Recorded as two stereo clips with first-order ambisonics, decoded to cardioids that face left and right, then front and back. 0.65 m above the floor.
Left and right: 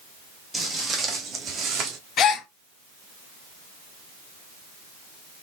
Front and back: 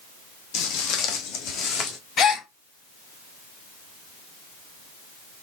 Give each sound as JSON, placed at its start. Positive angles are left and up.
{"t": 0.5, "sound": "footsteps", "azimuth_deg": -5, "distance_m": 1.3}
{"t": 2.2, "sound": "a gasp", "azimuth_deg": 50, "distance_m": 0.7}